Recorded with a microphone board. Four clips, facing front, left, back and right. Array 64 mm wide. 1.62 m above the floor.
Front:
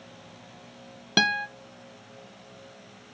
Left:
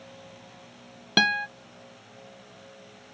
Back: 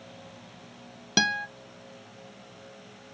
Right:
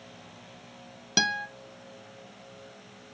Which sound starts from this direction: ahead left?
A guitar, at 1.2 s.